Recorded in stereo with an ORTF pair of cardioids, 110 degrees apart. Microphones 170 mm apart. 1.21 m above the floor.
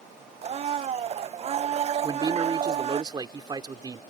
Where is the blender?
35° right.